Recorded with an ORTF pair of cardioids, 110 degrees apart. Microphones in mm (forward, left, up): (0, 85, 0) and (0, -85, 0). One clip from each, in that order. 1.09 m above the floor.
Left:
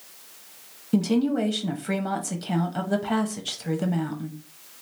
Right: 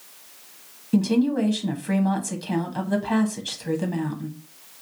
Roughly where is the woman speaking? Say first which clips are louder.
Right 1 dB; ahead.